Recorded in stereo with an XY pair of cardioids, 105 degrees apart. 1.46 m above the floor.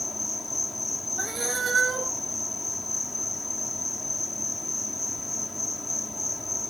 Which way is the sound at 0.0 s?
15° left.